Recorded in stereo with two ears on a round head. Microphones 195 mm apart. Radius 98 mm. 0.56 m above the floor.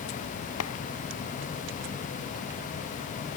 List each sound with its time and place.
0.6 s a clap: 70° left (ahead or behind)